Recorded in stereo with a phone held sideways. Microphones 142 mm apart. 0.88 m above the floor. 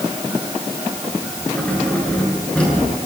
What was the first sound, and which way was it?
Keys jangling, 10° left (ahead or behind).